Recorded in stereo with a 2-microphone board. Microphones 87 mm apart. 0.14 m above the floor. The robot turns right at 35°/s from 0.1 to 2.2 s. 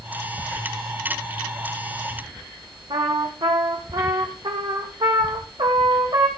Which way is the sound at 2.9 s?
60° right (ahead or behind).